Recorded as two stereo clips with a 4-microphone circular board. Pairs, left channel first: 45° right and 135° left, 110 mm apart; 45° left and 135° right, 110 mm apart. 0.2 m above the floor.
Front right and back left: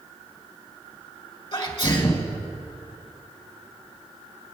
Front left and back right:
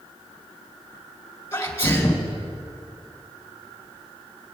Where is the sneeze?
20° right, 2.5 m.